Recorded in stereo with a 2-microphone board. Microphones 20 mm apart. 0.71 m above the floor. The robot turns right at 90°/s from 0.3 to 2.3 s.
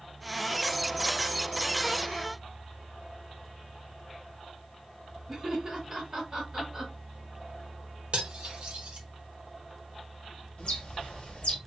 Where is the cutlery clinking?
55° right (ahead or behind), 1.1 m.